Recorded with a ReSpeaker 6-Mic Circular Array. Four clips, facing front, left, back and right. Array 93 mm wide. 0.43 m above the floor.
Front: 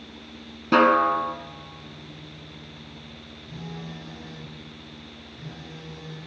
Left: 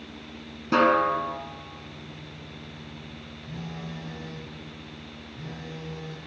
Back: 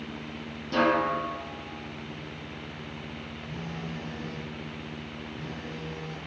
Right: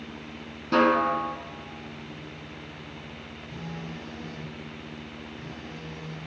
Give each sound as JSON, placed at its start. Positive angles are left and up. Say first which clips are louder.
{"t": 0.7, "sound": "a snare drum", "louder": "left 1 dB, front 6 dB", "azimuth_deg": 10, "distance_m": 0.9}
{"t": 3.5, "sound": "a phone buzzing", "louder": "left 1 dB, even", "azimuth_deg": 120, "distance_m": 2.0}